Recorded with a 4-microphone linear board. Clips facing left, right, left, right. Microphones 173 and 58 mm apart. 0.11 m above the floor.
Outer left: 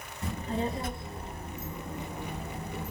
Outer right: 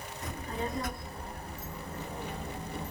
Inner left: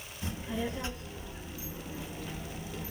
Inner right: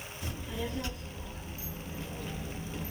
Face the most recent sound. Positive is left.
turn(degrees=5)  # may be behind; listen again after turning